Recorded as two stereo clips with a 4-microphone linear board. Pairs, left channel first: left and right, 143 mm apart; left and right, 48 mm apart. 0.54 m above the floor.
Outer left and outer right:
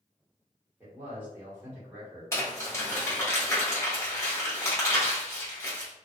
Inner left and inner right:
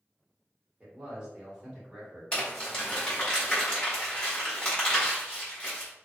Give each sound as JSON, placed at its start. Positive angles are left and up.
{"t": 0.8, "sound": "a man speaking", "side_deg": -15, "distance_m": 1.7}
{"t": 2.3, "sound": "crumpling", "side_deg": 20, "distance_m": 1.7}